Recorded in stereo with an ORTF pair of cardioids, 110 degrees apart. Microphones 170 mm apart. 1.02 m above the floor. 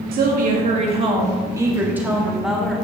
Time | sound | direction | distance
0.1 | a woman speaking | 65° right | 1.3 m